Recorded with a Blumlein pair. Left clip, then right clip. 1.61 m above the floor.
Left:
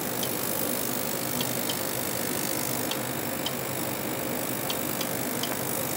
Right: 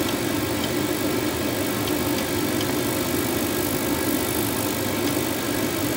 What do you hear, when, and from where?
0.0 s a fan: 35° right